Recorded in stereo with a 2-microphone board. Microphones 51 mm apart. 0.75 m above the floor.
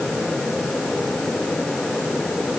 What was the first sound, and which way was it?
Only background noise.